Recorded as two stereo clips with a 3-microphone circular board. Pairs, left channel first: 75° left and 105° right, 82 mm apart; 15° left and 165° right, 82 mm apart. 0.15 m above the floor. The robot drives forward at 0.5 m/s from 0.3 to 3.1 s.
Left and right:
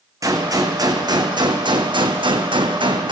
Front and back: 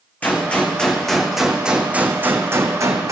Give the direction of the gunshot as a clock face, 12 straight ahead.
2 o'clock.